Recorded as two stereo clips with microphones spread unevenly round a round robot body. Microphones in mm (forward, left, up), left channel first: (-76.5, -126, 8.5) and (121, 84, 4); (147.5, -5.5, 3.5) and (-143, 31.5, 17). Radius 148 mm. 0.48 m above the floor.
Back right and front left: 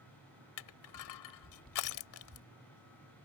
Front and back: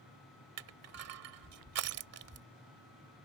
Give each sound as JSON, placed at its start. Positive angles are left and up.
{"t": 0.6, "sound": "crushing", "azimuth_deg": -150}